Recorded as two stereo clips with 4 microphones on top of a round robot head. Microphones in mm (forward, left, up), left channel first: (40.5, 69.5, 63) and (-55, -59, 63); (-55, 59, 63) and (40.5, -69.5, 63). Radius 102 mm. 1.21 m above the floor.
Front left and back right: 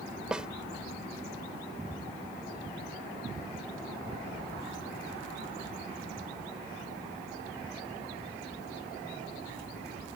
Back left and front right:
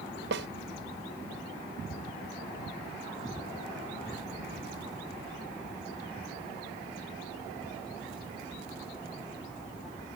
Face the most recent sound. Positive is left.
turn(degrees=-40)